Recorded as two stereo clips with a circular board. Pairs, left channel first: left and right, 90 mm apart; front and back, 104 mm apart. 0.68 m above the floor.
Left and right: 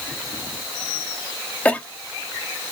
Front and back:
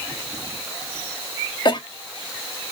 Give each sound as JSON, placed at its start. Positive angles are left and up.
{"t": 1.6, "sound": "a cough", "azimuth_deg": 20, "distance_m": 1.5}